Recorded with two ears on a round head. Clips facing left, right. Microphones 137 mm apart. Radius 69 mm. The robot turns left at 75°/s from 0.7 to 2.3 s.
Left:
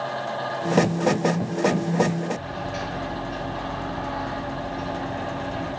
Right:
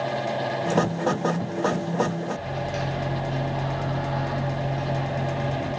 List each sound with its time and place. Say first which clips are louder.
2.3 s a microwave: right 1 dB; 65° right (ahead or behind), 2.5 m